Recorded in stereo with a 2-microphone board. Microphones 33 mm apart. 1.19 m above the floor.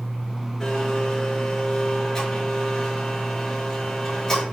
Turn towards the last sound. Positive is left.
turn(degrees=20)  # may be behind; listen again after turning